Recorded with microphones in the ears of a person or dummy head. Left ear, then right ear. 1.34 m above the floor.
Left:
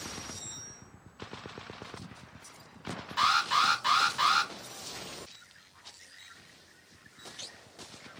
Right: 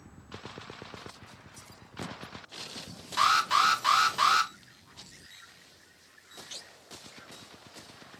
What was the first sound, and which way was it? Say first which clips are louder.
An alarm: right 2 dB; 10° right (ahead or behind).